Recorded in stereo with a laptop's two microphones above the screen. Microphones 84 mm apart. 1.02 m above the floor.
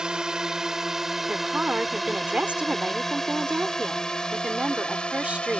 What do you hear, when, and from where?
0.0 s a drone: 10° right (ahead or behind); by 5.6 s 10° left (ahead or behind)
1.3 s a woman speaking: 15° right (ahead or behind)